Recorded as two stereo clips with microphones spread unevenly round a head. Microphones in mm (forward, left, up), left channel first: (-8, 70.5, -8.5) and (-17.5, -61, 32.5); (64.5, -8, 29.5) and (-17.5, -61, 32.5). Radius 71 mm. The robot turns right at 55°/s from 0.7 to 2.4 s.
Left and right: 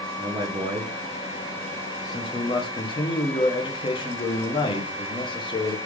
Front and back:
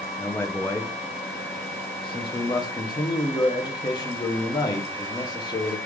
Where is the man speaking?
25° right, 0.7 m; by 5.8 s 65° left, 0.7 m.